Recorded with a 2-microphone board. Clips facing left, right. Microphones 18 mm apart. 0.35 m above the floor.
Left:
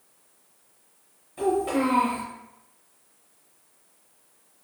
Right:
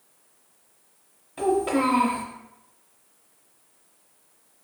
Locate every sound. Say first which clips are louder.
1.4 s a child speaking: right 1 dB; 25° right (ahead or behind), 0.6 m